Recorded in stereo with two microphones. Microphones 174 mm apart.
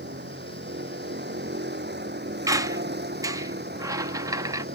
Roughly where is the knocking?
I don't hear knocking.